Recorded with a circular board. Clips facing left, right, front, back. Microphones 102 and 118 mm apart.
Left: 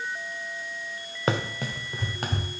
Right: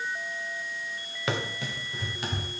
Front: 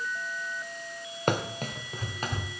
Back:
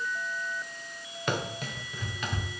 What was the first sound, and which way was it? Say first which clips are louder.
Running footsteps: left 4 dB, front 3 dB; 40° left.